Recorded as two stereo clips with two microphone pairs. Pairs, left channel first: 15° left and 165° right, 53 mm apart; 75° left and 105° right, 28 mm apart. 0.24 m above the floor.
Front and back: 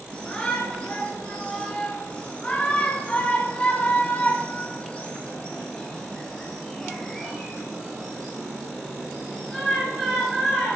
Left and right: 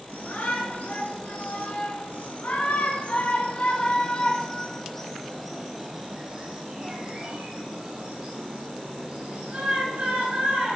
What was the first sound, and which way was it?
A shout, 85° left.